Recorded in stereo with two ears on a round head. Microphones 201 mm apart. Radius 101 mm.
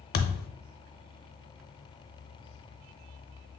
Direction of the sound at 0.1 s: 45° left (ahead or behind).